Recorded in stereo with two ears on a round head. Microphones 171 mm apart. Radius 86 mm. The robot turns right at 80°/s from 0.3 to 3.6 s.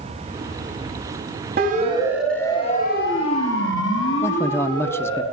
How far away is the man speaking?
About 1.0 m.